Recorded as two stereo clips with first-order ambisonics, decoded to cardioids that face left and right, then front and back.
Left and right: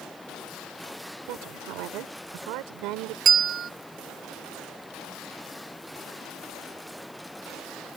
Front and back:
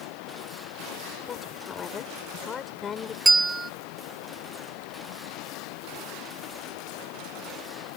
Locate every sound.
0.0 s running water: 5° left
1.3 s a woman speaking: 65° right
3.2 s a bell: 110° right